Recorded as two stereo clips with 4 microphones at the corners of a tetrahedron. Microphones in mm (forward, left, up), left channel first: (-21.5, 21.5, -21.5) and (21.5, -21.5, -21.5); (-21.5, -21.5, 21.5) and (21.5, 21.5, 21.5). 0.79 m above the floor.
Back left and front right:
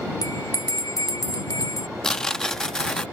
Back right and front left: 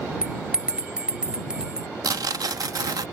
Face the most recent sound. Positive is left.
turn(degrees=55)